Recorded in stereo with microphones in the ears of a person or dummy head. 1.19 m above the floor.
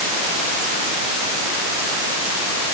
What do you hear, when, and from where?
Only background noise.